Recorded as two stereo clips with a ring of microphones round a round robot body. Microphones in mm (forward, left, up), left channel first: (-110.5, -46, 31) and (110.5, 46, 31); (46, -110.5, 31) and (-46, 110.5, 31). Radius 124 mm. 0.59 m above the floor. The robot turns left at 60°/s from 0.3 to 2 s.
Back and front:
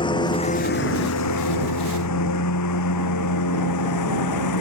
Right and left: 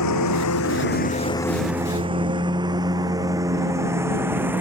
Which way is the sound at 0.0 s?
85° right.